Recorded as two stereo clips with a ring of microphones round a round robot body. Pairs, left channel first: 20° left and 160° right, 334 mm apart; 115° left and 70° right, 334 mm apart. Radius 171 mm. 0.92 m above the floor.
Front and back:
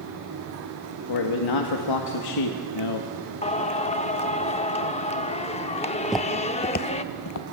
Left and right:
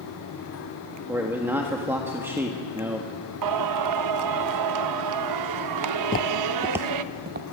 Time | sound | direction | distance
1.1 | a man speaking | 15° left | 1.6 m
3.4 | singing | 45° right | 0.7 m
6.0 | footsteps | 120° left | 1.0 m